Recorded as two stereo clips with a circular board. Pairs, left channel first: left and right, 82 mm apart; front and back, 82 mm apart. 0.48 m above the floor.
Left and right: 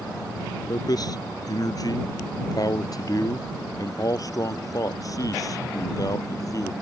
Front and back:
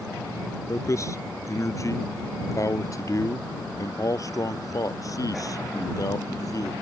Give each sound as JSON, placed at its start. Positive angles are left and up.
{"t": 0.7, "sound": "a man speaking", "azimuth_deg": 50}